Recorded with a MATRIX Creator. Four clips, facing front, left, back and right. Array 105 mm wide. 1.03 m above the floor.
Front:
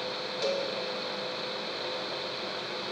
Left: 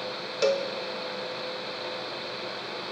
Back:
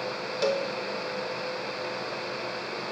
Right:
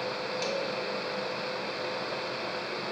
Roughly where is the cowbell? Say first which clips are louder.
Left 10 dB, back 4 dB; behind left.